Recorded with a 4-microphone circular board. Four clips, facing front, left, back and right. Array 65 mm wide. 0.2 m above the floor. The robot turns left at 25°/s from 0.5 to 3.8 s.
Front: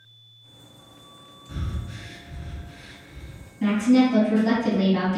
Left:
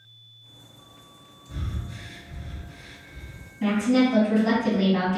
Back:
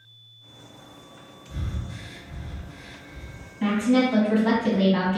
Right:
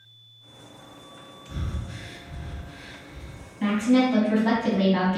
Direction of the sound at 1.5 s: 40° right.